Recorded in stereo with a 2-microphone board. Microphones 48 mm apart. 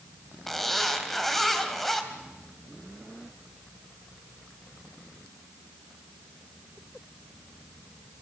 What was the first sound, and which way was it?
A zipper, 5° left (ahead or behind).